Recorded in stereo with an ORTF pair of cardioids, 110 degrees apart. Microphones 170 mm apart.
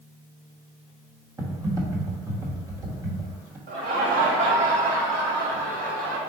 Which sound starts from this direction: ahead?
Typing on a keyboard, at 1.4 s.